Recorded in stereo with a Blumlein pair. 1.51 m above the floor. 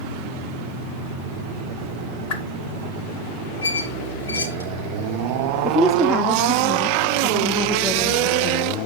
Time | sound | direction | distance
2.3 | a whoosh | 45° left | 1.4 m
3.6 | a squeak | 70° left | 3 m
5.6 | a woman speaking | 15° left | 0.7 m